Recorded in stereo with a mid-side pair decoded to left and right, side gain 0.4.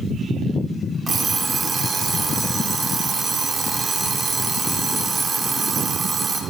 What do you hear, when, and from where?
1.1 s an alarm clock: 40° right, 1.9 m